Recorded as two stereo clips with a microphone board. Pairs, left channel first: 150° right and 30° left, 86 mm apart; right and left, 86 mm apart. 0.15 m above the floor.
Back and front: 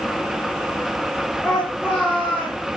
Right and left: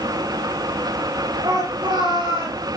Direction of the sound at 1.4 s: 115° left.